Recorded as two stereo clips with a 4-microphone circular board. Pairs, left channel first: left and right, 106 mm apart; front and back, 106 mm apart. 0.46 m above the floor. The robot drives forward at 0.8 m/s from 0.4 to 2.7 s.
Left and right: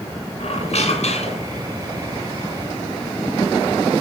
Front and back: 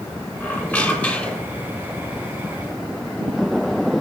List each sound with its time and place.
0.4 s a squeak: 75° left, 7 m; by 1.6 s 80° left, 7 m